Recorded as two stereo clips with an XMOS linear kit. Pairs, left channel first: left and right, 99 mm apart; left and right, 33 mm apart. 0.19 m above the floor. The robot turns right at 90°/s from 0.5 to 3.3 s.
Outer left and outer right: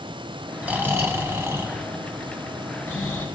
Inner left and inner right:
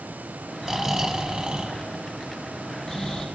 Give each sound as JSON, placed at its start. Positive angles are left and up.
{"t": 0.6, "sound": "snoring", "side_deg": -15, "distance_m": 1.4}